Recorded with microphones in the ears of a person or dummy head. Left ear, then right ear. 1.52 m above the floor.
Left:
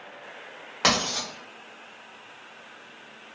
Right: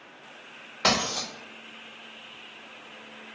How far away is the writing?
About 0.9 m.